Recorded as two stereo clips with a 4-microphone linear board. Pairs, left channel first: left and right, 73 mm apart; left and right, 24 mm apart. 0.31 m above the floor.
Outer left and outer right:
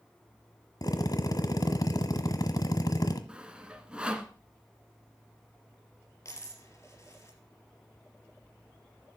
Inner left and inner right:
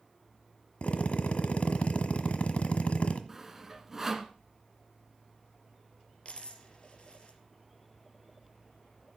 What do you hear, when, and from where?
0.8 s a drill: 60° left (ahead or behind), 1.3 m
3.3 s sawing: 15° right (ahead or behind), 1.3 m
6.2 s a dropped coin: 40° left (ahead or behind), 3 m